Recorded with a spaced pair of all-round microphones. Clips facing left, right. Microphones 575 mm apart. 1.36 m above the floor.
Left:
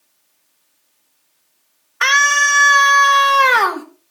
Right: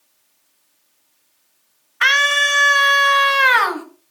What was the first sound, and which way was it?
A scream, 70° left (ahead or behind).